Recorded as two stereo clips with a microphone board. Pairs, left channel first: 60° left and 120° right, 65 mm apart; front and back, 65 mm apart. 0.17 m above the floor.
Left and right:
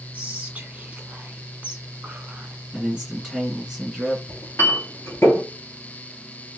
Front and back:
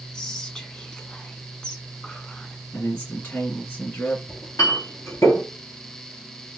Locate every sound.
0.1 s whispering: 65° right, 1.2 m
2.7 s a man speaking: 35° right, 2.0 m
4.3 s a clink: 15° left, 2.0 m